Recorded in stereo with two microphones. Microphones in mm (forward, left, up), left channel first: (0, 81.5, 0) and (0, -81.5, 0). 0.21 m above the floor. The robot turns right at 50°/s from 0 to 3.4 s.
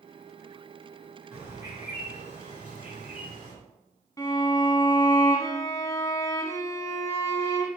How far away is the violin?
About 1.0 m.